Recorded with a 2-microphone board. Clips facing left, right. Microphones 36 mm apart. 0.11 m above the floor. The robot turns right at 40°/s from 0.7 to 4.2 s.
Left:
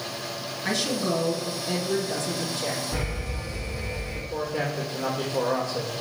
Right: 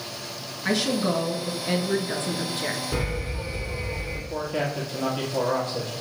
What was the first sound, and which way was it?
A woman speaking, 170° right.